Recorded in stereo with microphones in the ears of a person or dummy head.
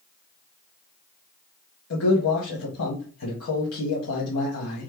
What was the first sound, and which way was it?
A man speaking, 80° left.